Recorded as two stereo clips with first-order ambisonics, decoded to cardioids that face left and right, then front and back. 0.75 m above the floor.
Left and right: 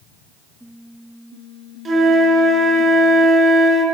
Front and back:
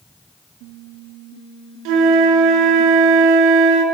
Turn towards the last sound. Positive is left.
turn(degrees=-160)